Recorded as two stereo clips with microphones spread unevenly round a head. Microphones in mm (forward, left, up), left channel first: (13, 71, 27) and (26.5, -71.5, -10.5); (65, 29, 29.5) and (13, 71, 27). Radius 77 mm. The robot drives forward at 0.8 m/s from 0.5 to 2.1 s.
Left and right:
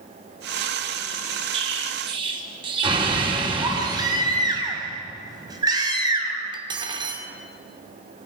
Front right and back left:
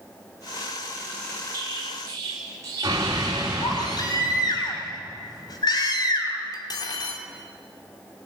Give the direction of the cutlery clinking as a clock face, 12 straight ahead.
1 o'clock.